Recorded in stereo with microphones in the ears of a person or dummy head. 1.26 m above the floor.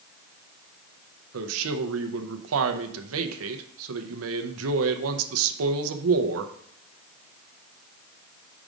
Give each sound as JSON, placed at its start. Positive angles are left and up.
{"t": 1.3, "sound": "a man speaking", "side_deg": -80, "distance_m": 0.7}